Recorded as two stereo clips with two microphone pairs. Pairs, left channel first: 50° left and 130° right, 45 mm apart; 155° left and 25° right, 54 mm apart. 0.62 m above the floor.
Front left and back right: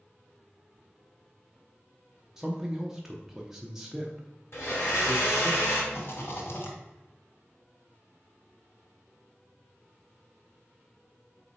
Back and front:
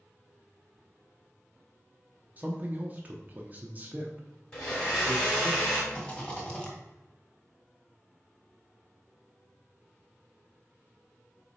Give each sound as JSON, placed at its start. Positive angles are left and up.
{"t": 2.4, "sound": "a man speaking", "azimuth_deg": -60, "distance_m": 0.8}
{"t": 4.5, "sound": "a blender", "azimuth_deg": 85, "distance_m": 3.0}
{"t": 5.9, "sound": "a rattle", "azimuth_deg": 80, "distance_m": 1.6}